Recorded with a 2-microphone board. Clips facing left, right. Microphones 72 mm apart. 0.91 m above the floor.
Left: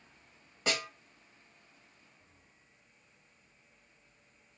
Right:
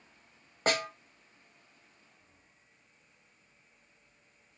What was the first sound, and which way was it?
A snare drum, 45° right (ahead or behind).